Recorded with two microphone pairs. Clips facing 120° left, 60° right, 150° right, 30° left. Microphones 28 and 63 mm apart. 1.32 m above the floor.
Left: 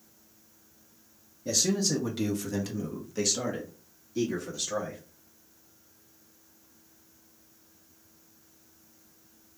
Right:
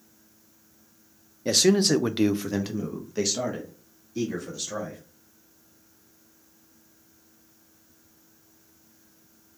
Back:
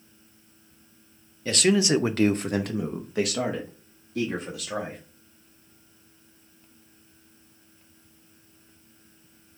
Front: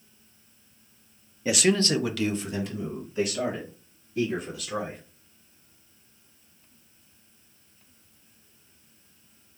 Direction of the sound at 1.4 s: 40° right.